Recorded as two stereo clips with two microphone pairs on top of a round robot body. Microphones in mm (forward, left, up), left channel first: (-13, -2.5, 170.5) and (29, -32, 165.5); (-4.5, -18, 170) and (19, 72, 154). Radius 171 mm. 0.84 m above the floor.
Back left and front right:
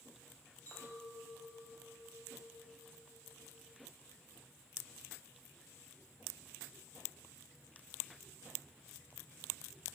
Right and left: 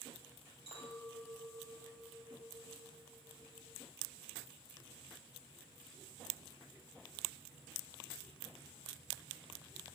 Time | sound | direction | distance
0.7 | a clink | 80° left | 5 m